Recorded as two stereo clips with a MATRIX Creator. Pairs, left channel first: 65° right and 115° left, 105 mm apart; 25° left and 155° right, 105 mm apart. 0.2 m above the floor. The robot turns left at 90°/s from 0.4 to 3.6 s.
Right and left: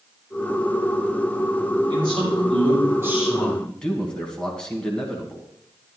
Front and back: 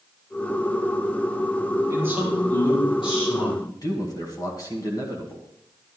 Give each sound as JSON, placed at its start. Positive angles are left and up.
{"t": 1.9, "sound": "a man speaking", "azimuth_deg": 150, "distance_m": 4.5}
{"t": 3.7, "sound": "a man speaking", "azimuth_deg": 10, "distance_m": 2.0}